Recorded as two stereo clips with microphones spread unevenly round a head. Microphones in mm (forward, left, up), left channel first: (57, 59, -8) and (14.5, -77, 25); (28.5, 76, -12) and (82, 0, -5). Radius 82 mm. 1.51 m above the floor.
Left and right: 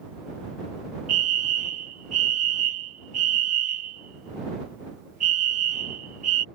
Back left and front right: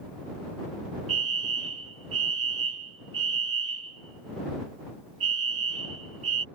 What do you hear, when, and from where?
1.1 s a fire alarm: 70° right